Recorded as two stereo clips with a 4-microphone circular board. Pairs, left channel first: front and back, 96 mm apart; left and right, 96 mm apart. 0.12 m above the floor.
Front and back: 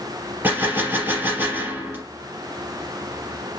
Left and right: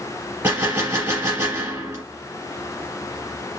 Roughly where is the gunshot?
Behind right.